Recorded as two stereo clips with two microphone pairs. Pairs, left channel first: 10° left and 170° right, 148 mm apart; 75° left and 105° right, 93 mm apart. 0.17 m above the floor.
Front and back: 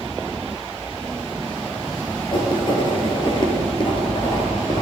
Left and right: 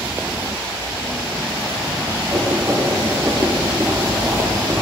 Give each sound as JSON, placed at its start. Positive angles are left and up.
{"t": 2.3, "sound": "writing", "azimuth_deg": -45, "distance_m": 1.8}